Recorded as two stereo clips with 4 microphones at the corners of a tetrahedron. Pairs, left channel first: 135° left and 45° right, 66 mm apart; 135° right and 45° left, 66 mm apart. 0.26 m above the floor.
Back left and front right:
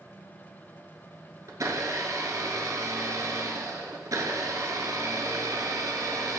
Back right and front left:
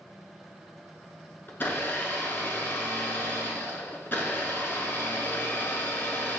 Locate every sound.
1.5 s a blender: 75° right, 0.8 m